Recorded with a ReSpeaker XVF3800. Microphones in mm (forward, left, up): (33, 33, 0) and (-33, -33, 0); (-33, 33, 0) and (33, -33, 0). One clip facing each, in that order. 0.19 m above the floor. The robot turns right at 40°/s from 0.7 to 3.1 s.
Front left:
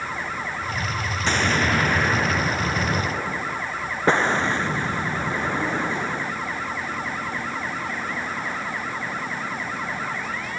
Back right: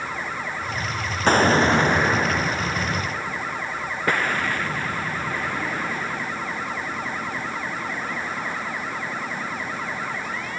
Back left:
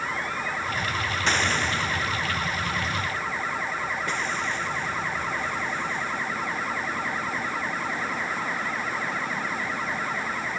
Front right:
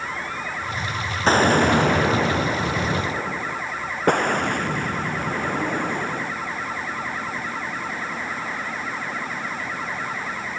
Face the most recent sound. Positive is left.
turn(degrees=-20)